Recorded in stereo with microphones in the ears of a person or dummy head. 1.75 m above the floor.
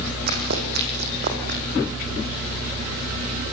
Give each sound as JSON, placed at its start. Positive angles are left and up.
{"t": 0.3, "sound": "running footsteps", "side_deg": -55, "distance_m": 6.0}